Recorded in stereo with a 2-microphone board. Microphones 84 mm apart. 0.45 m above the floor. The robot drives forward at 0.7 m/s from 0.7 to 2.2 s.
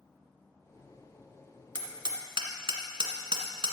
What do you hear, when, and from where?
1.8 s hammering: 65° right (ahead or behind), 1.7 m; by 3.7 s 75° right (ahead or behind), 1.6 m